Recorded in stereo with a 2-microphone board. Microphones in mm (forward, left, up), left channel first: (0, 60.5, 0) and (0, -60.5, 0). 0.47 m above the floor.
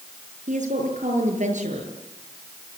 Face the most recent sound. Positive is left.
turn(degrees=-85)